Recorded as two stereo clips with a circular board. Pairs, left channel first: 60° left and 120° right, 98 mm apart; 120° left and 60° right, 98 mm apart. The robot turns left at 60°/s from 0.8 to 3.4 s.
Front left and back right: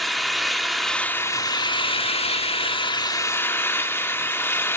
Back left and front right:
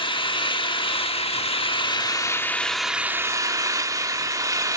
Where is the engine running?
150° left, 1.2 m; by 4.8 s 5° right, 1.2 m.